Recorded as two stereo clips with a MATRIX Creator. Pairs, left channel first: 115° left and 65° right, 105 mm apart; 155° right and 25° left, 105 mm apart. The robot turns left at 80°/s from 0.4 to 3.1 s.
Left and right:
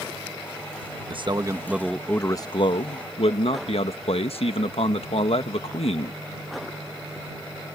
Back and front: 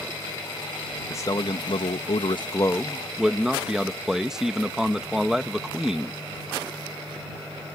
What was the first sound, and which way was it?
A man speaking, 95° right.